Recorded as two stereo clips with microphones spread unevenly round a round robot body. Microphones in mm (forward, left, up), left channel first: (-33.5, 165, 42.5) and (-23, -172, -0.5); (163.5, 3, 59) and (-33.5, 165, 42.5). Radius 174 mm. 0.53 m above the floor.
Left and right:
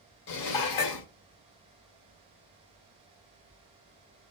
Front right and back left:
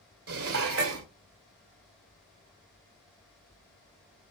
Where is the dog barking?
I don't hear a dog barking.